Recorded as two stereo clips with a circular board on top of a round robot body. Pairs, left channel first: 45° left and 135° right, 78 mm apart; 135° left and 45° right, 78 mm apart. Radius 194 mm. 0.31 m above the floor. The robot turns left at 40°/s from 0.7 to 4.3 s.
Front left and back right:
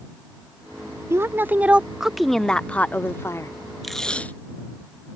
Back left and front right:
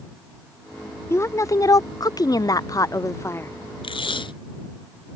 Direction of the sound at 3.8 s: 135° left.